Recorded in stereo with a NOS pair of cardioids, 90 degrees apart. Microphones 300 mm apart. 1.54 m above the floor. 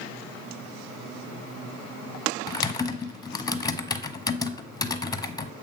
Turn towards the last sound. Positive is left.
turn(degrees=10)